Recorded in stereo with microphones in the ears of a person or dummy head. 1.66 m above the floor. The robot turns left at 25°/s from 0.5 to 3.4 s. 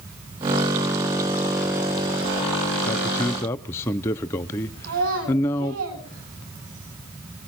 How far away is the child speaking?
About 7.5 m.